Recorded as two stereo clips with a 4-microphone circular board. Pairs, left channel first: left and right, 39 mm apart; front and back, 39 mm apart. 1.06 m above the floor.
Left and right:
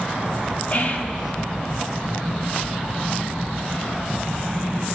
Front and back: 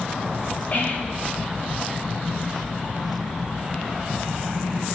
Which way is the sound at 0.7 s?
45° left.